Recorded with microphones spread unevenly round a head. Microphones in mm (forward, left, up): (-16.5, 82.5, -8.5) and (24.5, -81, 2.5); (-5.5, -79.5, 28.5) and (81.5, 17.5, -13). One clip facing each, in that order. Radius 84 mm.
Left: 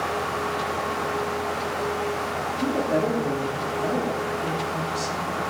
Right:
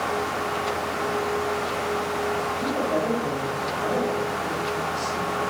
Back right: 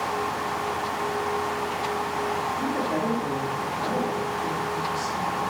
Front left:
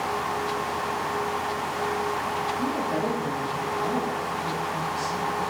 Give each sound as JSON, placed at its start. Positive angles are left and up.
{"t": 2.6, "sound": "a woman speaking", "azimuth_deg": 155, "distance_m": 4.0}